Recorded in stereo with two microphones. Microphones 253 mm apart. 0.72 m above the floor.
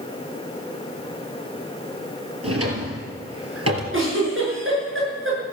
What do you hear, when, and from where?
2.4 s a drawer: 65° right (ahead or behind), 3.5 m
3.9 s a giggle: 55° right (ahead or behind), 6.5 m